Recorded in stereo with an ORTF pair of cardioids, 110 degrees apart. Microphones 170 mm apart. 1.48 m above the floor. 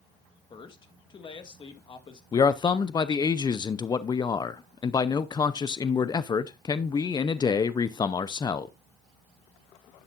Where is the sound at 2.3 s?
25° left, 0.6 m.